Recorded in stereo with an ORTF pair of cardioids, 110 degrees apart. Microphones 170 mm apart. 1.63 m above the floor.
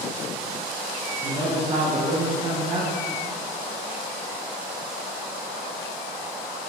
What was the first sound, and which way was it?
A man speaking, 35° right.